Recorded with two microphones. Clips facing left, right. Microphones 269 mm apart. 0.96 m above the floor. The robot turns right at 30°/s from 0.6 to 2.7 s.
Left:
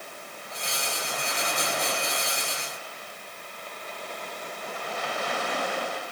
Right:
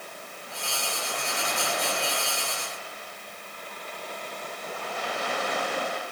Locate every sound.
Only background noise.